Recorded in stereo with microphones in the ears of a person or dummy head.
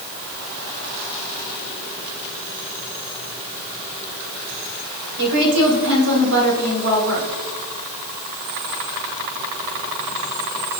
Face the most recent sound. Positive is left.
turn(degrees=-75)  # may be behind; listen again after turning